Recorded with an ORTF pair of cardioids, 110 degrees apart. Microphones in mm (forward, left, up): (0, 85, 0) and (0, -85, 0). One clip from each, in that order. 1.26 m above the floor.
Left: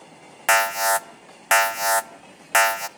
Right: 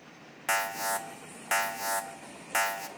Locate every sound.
0.5 s an alarm: 50° left, 0.7 m